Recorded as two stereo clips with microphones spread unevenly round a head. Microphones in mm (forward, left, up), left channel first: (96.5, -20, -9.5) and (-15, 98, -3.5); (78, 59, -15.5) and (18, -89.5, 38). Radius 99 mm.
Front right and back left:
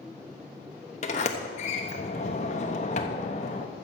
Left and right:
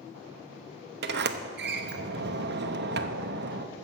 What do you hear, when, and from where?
1.0 s a sliding door: 105° right, 0.9 m